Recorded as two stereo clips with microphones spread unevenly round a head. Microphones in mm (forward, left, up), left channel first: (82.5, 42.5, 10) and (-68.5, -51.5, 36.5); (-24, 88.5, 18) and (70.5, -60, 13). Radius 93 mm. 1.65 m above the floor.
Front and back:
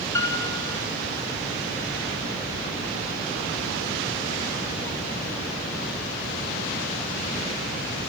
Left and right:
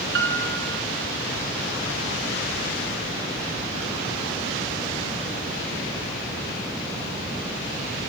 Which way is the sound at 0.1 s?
45° right.